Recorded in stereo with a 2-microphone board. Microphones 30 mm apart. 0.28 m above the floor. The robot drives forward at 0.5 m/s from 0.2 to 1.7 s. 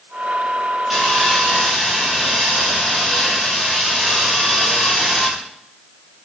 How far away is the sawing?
About 5.5 m.